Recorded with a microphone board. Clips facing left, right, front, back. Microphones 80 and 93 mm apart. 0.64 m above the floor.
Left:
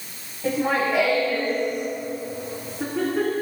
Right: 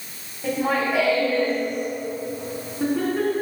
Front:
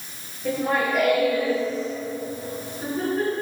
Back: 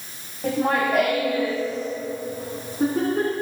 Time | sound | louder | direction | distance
0.4 | laughter | even, back 2 dB | 175° right | 4 m